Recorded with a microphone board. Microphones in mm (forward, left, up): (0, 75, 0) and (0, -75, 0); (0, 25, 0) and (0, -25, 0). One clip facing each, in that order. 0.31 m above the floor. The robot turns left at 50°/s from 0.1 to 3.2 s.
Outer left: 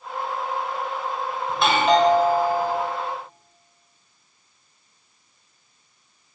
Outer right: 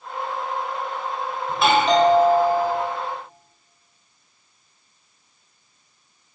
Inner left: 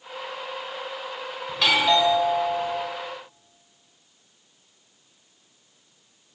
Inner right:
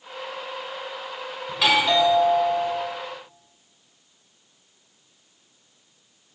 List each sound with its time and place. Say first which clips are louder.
1.5 s a doorbell: outer right 1 dB, even; 5° right (ahead or behind), 1.3 m; by 2.8 s 15° left (ahead or behind), 1.3 m